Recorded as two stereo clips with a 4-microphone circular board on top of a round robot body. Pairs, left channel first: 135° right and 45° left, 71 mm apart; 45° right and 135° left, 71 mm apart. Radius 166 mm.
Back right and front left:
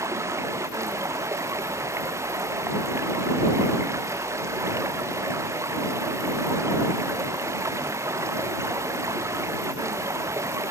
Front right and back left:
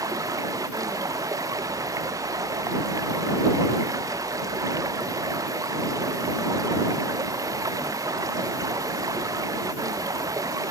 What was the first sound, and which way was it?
Running water, 95° left.